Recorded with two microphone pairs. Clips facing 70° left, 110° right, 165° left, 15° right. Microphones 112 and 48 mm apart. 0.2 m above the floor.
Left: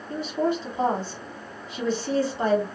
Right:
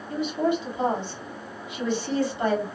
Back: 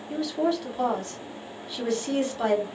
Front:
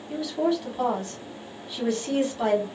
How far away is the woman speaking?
About 1.4 m.